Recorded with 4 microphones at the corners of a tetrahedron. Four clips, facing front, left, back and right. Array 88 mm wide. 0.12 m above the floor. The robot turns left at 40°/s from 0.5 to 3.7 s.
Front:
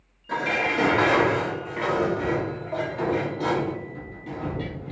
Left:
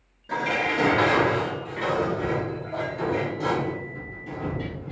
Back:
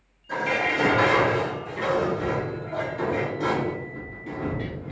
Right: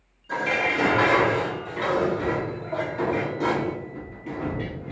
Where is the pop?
No pop in this recording.